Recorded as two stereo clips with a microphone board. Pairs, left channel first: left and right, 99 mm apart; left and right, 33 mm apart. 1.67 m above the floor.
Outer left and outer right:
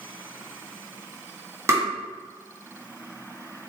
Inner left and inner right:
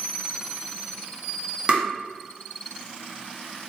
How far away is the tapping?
About 1.0 m.